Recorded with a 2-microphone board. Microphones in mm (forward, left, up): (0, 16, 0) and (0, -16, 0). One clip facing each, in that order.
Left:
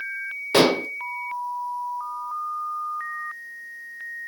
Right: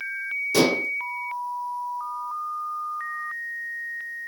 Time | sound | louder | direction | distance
0.5 | dishes clattering | left 3 dB | 45° left (ahead or behind) | 1.1 m